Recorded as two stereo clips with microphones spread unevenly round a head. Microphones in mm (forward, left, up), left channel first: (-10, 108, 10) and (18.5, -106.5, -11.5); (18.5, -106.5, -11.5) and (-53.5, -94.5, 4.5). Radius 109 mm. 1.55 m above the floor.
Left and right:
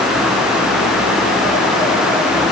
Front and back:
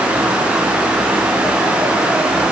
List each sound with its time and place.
Only background noise.